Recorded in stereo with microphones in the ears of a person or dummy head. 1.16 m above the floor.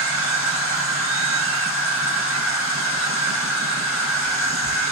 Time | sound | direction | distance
0.0 | an insect | 65° left (ahead or behind) | 3 m